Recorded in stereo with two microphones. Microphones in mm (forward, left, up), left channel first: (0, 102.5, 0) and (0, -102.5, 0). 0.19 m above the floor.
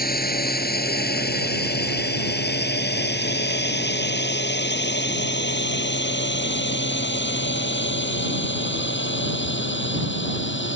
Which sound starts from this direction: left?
A drone, at 0.0 s.